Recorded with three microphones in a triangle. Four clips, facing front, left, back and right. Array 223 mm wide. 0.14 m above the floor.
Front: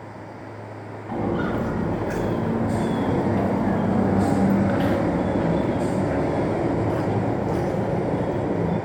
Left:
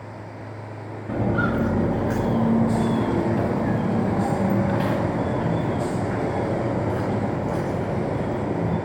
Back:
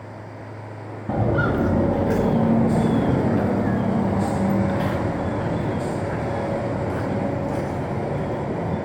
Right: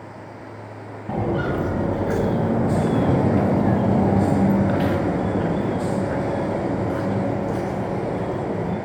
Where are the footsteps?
160° right, 2.0 m; by 8.8 s 25° right, 4 m.